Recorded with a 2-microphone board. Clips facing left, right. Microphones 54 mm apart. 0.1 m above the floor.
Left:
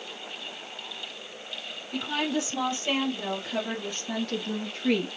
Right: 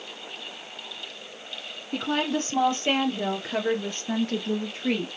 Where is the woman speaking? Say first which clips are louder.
Right 2 dB; 45° right (ahead or behind), 3 m; by 5.1 s centre (ahead or behind), 1.6 m.